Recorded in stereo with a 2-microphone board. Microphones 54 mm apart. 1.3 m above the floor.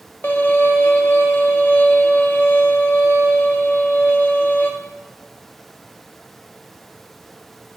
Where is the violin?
40° left (ahead or behind), 0.7 m.